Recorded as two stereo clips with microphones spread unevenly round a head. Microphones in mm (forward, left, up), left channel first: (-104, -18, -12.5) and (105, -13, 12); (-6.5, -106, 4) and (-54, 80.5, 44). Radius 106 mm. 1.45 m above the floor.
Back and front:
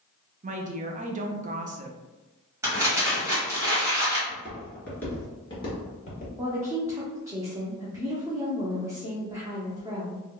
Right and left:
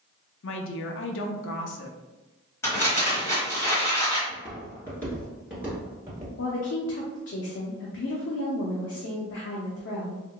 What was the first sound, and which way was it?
A woman speaking, 55° right.